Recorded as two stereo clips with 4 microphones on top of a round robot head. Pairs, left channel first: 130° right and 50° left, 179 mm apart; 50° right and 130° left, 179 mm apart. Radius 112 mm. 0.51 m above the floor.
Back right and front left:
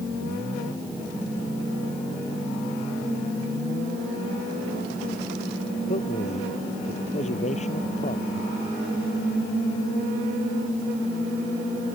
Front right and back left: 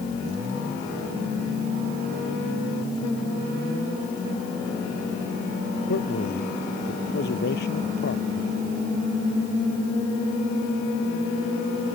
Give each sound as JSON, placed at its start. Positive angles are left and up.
{"t": 5.9, "sound": "a man speaking", "azimuth_deg": -80}